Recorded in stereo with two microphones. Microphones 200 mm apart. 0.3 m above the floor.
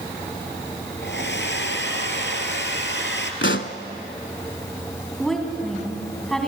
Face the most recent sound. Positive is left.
turn(degrees=0)  # may be behind; listen again after turning